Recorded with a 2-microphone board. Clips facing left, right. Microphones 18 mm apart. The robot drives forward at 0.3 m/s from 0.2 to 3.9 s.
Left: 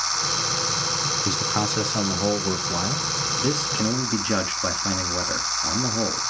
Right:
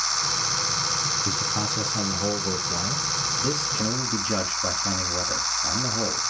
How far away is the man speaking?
About 1.3 m.